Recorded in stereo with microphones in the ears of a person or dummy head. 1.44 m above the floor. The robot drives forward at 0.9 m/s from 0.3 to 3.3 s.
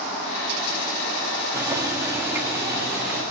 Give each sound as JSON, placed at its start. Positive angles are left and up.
{"t": 1.5, "sound": "boiling", "side_deg": -20, "distance_m": 1.8}